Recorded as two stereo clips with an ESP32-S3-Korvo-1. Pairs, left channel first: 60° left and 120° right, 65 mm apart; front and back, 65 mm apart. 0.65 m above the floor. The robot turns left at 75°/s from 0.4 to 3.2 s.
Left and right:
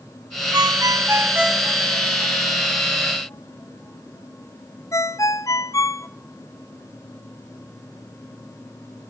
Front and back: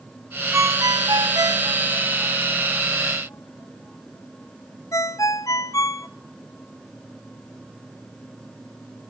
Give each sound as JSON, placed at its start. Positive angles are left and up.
{"t": 0.5, "sound": "a ringtone", "azimuth_deg": -130, "distance_m": 0.5}